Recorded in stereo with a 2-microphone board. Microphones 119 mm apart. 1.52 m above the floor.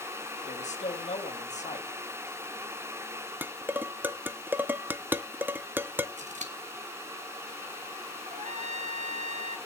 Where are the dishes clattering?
15° right (ahead or behind), 0.5 m.